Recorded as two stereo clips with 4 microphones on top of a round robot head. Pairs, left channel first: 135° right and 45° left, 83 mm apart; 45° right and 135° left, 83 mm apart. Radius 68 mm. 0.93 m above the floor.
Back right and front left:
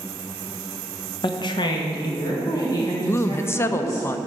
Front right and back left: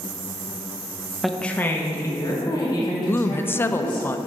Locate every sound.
1.2 s a woman speaking: 140° right, 0.9 m; by 4.1 s 80° right, 4.5 m
3.1 s a woman speaking: 95° right, 0.5 m